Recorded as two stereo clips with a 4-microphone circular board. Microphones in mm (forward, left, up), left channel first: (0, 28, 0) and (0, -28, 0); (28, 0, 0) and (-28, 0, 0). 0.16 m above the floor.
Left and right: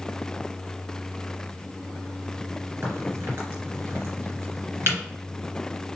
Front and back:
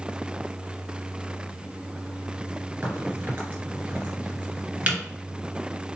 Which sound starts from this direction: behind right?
A crack, at 2.8 s.